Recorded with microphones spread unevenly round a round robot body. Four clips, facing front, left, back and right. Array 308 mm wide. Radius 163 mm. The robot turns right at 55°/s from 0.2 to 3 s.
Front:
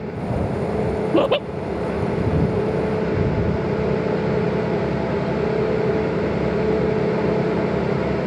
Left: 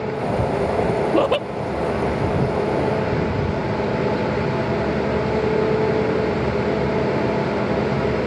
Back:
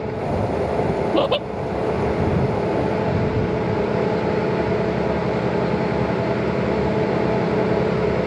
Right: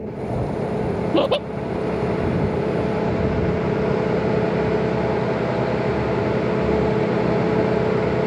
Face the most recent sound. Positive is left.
turn(degrees=90)